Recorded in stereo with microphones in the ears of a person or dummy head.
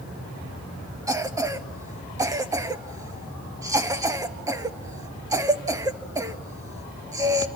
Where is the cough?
10° right (ahead or behind), 1.3 m.